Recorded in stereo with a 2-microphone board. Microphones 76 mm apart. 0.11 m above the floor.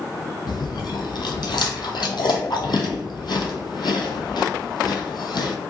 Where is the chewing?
75° left (ahead or behind), 0.6 m.